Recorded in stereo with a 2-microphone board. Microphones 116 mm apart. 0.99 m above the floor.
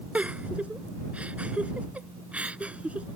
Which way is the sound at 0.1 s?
10° right (ahead or behind).